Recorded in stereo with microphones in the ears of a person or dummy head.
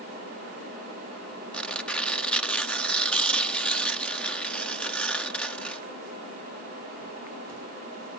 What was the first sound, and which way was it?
Tearing paper, 5° left (ahead or behind).